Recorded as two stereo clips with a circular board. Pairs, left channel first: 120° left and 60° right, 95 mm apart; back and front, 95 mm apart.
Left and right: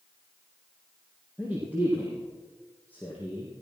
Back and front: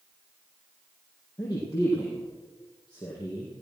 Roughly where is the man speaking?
Behind right.